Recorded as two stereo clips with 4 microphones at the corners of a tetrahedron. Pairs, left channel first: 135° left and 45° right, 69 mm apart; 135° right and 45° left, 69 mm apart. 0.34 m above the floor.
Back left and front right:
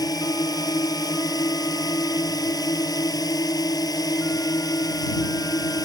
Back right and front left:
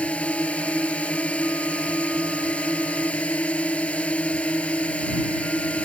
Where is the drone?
155° left.